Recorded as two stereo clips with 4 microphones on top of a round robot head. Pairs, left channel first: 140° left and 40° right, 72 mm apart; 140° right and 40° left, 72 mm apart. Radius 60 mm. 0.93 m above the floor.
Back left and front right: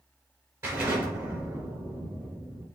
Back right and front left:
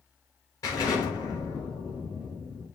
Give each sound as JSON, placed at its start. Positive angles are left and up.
{"t": 0.6, "sound": "an explosion", "azimuth_deg": -100, "distance_m": 5.0}